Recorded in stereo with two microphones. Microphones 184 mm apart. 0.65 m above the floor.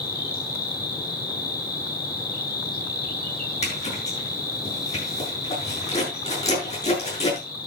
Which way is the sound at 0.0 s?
55° left (ahead or behind).